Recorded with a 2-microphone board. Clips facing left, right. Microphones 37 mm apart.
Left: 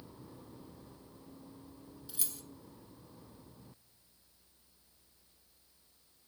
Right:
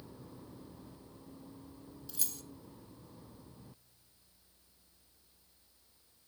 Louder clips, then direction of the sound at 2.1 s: Right 1 dB; 5° left (ahead or behind).